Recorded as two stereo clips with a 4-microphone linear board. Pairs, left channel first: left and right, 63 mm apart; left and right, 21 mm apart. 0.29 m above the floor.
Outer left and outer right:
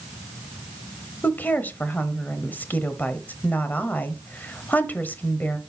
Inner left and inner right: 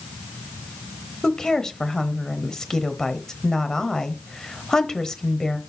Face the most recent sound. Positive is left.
turn(degrees=30)  # may be behind; listen again after turning